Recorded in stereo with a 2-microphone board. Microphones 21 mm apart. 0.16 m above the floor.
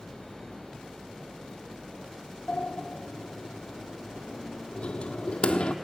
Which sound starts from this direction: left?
A sliding door, at 2.5 s.